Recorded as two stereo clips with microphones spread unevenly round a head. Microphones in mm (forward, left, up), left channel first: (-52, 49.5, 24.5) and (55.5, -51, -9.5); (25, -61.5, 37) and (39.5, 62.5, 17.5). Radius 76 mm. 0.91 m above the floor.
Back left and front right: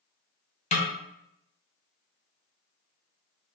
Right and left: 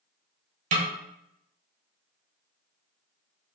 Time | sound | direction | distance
0.7 | a snare drum | 85° left | 0.7 m